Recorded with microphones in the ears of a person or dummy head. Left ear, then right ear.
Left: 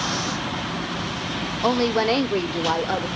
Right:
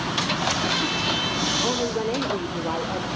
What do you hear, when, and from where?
1.6 s a woman speaking: 60° left (ahead or behind), 0.9 m; by 3.1 s 75° left (ahead or behind), 1.4 m